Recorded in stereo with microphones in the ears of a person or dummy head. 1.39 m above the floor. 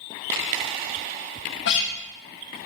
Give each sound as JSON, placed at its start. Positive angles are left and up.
{"t": 1.6, "sound": "a guitar", "side_deg": 70, "distance_m": 1.6}